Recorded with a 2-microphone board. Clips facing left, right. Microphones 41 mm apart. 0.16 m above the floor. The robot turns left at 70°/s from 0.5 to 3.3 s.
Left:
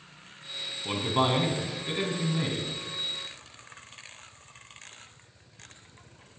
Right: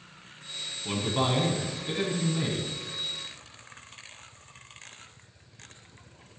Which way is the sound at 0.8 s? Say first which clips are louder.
Left 2 dB; 15° left (ahead or behind).